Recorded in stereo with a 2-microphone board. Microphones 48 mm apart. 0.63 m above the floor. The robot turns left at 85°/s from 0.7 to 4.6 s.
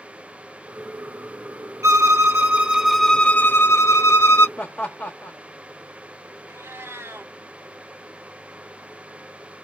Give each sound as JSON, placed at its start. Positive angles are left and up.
{"t": 1.8, "sound": "a violin", "azimuth_deg": -85, "distance_m": 0.6}
{"t": 4.6, "sound": "laughter", "side_deg": 25, "distance_m": 0.7}
{"t": 6.5, "sound": "a cat meowing", "side_deg": -60, "distance_m": 1.2}